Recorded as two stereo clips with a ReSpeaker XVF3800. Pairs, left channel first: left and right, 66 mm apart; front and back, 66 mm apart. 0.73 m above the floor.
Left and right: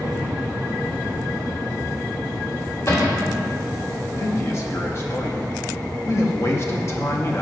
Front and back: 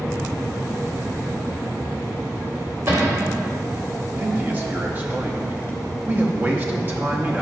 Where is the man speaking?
125° left, 0.7 m.